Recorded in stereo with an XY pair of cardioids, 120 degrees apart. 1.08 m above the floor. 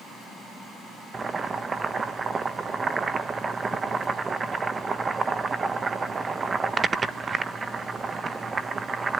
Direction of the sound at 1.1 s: 30° right.